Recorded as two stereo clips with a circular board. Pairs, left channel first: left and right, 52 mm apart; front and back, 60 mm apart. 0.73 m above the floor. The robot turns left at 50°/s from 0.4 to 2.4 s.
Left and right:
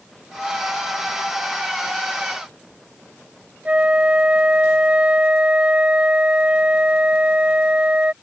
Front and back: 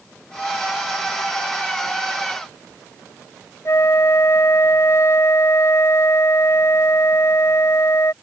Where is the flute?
30° right.